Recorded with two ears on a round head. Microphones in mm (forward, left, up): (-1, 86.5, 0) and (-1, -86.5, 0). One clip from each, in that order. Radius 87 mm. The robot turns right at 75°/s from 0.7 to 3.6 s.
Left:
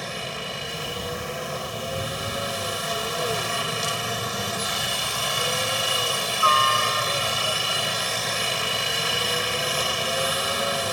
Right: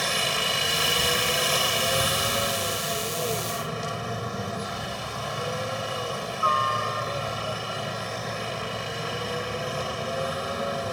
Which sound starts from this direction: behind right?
A helicopter, at 0.0 s.